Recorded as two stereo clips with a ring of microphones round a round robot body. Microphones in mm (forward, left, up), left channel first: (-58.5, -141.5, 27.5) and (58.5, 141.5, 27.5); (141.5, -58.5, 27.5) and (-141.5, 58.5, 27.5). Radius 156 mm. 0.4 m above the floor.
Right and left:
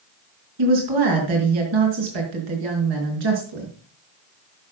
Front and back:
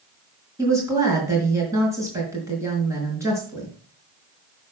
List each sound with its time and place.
0.6 s a woman speaking: 75° left, 5 m